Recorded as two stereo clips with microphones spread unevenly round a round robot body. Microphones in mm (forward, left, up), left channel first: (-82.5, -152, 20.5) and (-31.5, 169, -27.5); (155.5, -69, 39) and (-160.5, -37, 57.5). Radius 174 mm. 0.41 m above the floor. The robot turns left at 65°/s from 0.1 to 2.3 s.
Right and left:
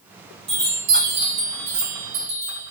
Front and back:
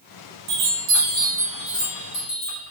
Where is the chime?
150° left, 2.0 m; by 2.7 s 30° left, 2.0 m.